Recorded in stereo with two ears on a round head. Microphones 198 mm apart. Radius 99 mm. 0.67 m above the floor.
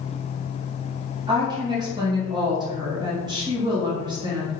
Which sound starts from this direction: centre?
A woman speaking, at 1.3 s.